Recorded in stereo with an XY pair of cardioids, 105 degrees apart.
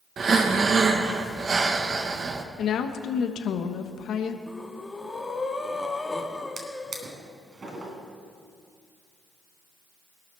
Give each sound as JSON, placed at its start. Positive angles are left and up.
{"t": 0.2, "sound": "breathing", "azimuth_deg": -45, "distance_m": 1.3}
{"t": 2.6, "sound": "a woman speaking", "azimuth_deg": 65, "distance_m": 1.3}
{"t": 4.5, "sound": "breathing", "azimuth_deg": 15, "distance_m": 1.5}
{"t": 6.6, "sound": "a drawer", "azimuth_deg": -40, "distance_m": 3.0}